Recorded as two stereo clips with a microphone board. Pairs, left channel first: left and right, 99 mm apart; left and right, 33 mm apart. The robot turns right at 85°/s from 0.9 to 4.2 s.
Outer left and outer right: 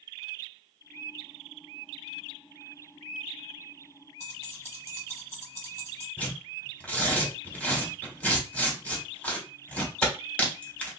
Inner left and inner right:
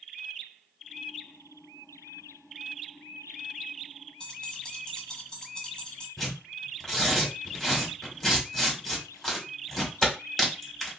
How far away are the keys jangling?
About 1.1 m.